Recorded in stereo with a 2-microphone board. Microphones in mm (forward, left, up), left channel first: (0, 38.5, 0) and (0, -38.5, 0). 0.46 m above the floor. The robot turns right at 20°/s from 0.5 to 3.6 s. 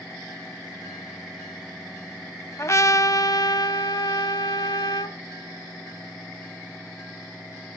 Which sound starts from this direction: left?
A trumpet, at 2.6 s.